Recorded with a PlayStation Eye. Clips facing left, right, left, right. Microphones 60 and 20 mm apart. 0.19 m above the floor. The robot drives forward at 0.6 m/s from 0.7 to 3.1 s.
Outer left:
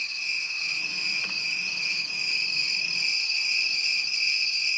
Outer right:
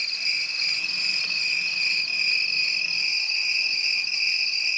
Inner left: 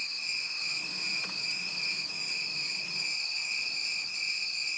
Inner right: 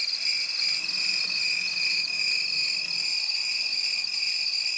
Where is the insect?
65° right (ahead or behind), 1.0 m; by 4.8 s 35° right (ahead or behind), 1.6 m.